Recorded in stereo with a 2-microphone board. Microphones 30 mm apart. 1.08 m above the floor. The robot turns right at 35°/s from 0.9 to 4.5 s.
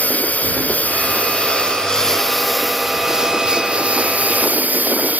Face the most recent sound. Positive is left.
turn(degrees=-115)